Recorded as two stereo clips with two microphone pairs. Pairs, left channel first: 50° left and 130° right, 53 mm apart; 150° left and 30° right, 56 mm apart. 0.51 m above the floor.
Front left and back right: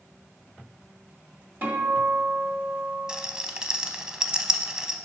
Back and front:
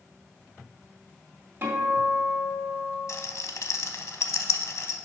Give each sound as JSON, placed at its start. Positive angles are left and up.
{"t": 1.6, "sound": "a guitar", "azimuth_deg": -80, "distance_m": 2.0}
{"t": 3.1, "sound": "a rattle", "azimuth_deg": 155, "distance_m": 0.6}